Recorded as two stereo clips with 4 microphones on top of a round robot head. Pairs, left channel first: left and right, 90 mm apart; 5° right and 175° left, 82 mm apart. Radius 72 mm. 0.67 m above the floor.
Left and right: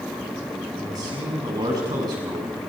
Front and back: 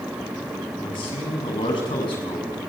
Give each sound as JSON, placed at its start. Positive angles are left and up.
{"t": 0.8, "sound": "a man speaking", "azimuth_deg": -35, "distance_m": 5.5}